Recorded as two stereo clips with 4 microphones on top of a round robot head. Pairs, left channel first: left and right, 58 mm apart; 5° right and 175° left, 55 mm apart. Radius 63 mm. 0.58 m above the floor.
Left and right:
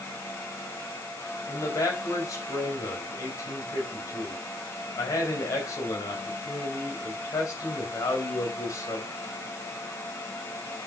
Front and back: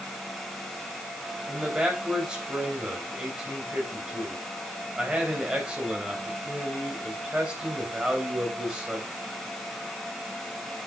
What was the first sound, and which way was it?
A man speaking, 105° left.